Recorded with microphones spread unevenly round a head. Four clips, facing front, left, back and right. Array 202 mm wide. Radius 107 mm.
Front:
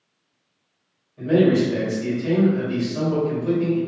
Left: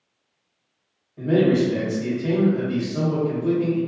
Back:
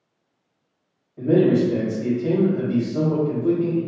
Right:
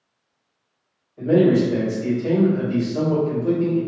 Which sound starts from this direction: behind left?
A man speaking, at 1.2 s.